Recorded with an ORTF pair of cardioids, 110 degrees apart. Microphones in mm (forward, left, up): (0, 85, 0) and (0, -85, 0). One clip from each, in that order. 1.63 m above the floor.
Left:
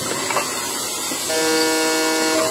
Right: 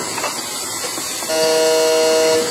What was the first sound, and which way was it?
A buzzer, 20° right.